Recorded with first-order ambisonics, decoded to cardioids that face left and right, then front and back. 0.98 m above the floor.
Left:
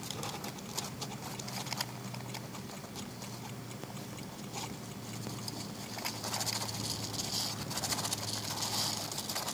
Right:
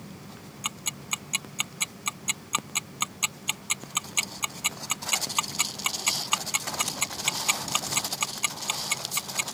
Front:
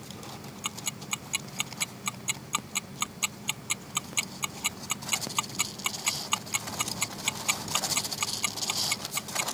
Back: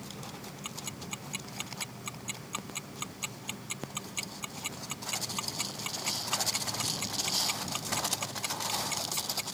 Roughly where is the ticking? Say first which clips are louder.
Right 8 dB, front 7 dB; ahead right.